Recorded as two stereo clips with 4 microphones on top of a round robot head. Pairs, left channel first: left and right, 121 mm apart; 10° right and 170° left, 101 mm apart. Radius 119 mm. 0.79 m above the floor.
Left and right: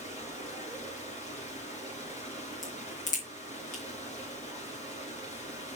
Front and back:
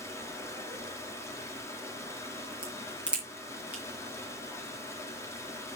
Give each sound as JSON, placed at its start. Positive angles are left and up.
{"t": 0.0, "sound": "running water", "azimuth_deg": 55, "distance_m": 3.5}
{"t": 2.6, "sound": "a crack", "azimuth_deg": 90, "distance_m": 4.5}